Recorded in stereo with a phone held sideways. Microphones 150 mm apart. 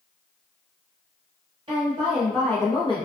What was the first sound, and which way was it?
A woman speaking, 35° right (ahead or behind).